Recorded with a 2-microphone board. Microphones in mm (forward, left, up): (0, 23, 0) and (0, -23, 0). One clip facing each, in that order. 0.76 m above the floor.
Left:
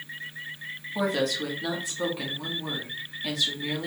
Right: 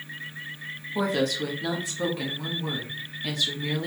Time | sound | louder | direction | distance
0.9 | a woman speaking | right 1 dB | centre (ahead or behind) | 0.9 m